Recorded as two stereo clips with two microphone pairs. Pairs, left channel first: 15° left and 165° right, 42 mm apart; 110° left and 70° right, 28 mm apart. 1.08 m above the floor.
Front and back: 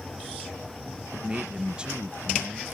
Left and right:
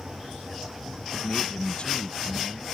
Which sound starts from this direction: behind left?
A man speaking, at 1.1 s.